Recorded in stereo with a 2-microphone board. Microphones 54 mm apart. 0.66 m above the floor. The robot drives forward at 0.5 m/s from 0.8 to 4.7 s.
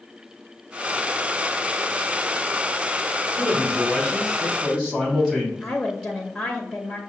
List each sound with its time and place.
3.3 s a man speaking: centre (ahead or behind), 1.9 m
5.6 s a woman speaking: 10° left (ahead or behind), 0.6 m